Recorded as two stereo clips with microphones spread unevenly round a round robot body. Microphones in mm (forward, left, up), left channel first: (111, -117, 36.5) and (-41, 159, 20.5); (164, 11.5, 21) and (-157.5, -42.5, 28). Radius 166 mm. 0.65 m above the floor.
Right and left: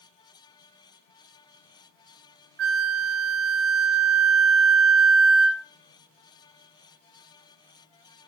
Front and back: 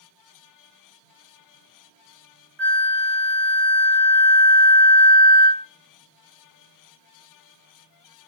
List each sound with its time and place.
2.6 s a flute: 90° left, 0.7 m